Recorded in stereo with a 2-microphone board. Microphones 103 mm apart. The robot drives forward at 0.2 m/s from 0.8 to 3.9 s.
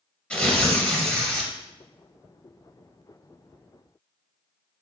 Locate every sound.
0.3 s tearing paper: 10° left (ahead or behind), 0.8 m